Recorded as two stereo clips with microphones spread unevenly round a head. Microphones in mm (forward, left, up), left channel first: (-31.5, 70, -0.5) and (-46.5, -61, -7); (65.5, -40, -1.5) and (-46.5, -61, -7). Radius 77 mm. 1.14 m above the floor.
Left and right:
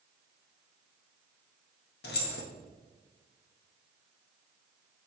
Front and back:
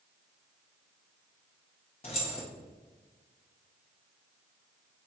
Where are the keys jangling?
65° left, 1.0 m.